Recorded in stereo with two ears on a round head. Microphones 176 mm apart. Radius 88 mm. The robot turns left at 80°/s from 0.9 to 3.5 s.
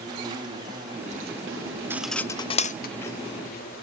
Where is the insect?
25° right, 4 m; by 3.8 s 130° left, 4 m.